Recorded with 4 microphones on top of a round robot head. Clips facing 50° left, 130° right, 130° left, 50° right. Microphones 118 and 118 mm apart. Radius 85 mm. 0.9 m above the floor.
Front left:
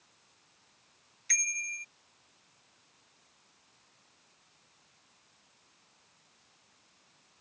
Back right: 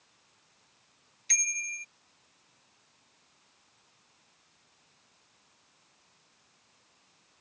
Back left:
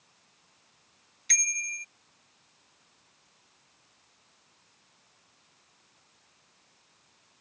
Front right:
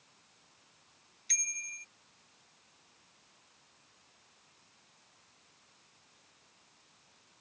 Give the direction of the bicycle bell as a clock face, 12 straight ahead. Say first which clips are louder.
Even, back left 10 dB; 7 o'clock.